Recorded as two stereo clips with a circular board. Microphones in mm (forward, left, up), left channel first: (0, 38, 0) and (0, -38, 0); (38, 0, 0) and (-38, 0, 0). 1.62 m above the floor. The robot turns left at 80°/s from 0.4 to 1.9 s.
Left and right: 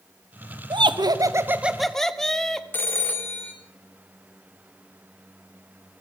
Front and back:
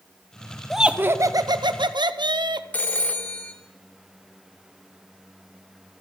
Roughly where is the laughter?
Right.